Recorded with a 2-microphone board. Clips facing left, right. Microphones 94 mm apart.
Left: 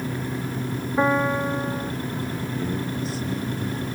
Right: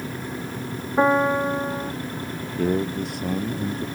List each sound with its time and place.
1.0 s a piano: 15° right (ahead or behind)
2.6 s a man speaking: 65° right (ahead or behind)